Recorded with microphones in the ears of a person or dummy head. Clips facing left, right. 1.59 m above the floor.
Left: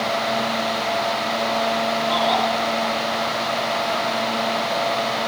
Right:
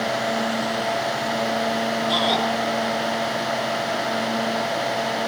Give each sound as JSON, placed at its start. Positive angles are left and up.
{"t": 2.1, "sound": "a shout", "side_deg": -35, "distance_m": 5.0}